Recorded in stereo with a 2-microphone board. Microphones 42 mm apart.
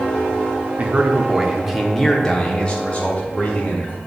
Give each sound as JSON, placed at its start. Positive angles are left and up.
{"t": 0.8, "sound": "a man speaking", "side_deg": -40, "distance_m": 0.8}